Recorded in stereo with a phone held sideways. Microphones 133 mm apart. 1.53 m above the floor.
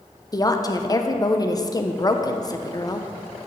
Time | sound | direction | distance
0.3 | a woman speaking | 30° left (ahead or behind) | 0.6 m